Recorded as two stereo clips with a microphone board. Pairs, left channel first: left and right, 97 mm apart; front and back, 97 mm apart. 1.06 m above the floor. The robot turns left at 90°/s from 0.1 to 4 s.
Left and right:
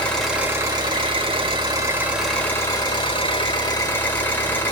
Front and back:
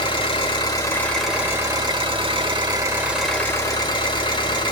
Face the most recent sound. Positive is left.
turn(degrees=20)